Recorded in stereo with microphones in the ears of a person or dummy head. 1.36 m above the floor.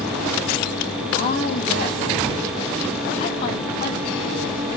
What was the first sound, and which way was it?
A woman speaking, 45° left (ahead or behind).